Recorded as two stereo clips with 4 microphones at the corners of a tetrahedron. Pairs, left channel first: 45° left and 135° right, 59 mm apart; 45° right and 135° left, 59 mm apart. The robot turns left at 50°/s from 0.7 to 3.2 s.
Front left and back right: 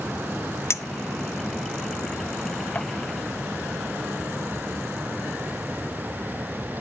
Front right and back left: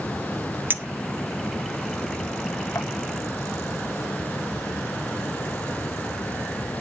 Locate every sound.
0.7 s a clink: 85° left, 0.6 m; by 2.9 s 25° right, 0.6 m